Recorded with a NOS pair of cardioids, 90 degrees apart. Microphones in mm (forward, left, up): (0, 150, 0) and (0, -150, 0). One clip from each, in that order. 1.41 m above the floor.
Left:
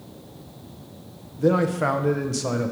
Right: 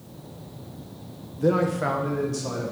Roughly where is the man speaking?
Ahead.